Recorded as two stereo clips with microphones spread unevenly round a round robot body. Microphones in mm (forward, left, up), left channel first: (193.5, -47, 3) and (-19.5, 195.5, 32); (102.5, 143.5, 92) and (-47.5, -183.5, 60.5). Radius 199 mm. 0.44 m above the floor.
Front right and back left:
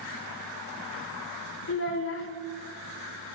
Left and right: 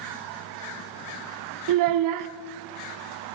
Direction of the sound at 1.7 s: 95° right.